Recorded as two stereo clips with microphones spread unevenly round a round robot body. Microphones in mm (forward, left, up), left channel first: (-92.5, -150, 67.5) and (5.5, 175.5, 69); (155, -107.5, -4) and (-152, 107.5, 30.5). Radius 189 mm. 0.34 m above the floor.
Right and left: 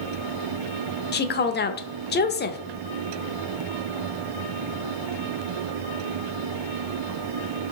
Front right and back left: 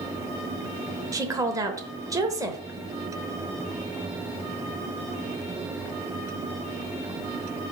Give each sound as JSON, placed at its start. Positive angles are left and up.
{"t": 1.1, "sound": "a woman speaking", "azimuth_deg": -130, "distance_m": 0.9}